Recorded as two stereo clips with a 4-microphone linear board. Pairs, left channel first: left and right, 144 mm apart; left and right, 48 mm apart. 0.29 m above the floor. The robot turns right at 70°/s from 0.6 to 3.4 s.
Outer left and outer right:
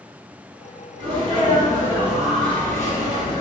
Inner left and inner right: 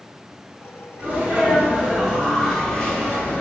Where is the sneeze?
95° right, 1.7 m; by 3.4 s 75° left, 1.7 m.